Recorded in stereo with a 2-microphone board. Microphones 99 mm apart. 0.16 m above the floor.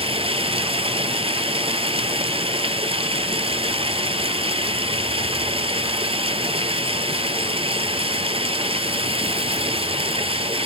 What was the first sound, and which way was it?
Running water, 70° right (ahead or behind).